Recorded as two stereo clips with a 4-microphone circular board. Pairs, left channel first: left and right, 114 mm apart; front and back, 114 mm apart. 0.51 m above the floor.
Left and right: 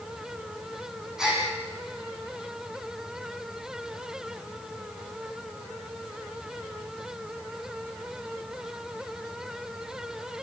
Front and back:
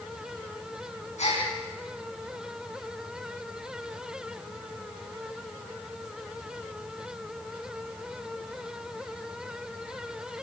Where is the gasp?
5° right, 9.5 m.